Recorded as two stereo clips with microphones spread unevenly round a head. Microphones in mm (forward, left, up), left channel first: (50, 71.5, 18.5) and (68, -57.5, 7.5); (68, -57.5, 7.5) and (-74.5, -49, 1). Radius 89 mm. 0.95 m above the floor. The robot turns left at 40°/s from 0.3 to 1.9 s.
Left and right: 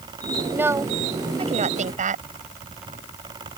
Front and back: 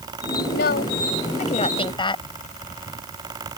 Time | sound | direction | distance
0.5 | a woman speaking | 5° right | ?